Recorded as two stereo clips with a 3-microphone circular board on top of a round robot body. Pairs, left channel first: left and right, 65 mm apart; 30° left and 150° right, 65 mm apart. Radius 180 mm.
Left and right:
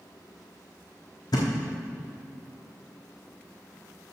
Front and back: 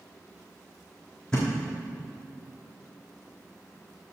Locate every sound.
1.3 s a thud: 110° left, 1.5 m